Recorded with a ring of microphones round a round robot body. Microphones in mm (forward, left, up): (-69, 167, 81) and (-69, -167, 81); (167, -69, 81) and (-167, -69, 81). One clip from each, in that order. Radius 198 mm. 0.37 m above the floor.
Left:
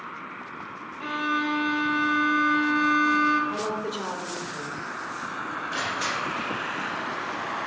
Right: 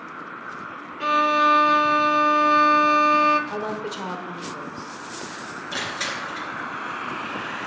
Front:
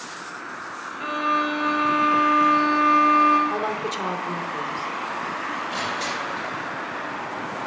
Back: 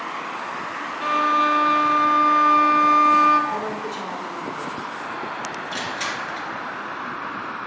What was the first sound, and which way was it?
A violin, 120° right.